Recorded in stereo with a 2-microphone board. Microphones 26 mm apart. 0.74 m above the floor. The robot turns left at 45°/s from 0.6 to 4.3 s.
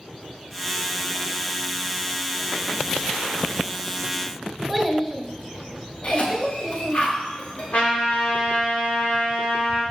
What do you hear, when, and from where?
4.7 s a child speaking: 5° left (ahead or behind), 1.5 m
6.0 s a cough: 45° left (ahead or behind), 1.0 m
7.7 s a trumpet: 65° left (ahead or behind), 2.5 m